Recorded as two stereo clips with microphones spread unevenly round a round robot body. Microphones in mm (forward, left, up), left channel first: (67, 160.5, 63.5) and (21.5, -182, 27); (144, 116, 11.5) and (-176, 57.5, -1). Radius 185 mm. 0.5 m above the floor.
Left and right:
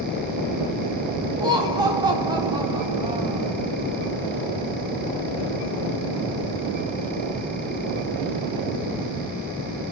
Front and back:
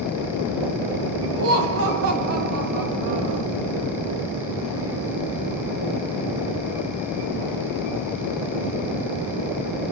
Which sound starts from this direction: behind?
Laughter, at 1.4 s.